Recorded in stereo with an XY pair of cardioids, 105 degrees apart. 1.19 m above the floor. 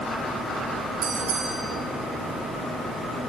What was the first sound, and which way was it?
A bell, 65° right.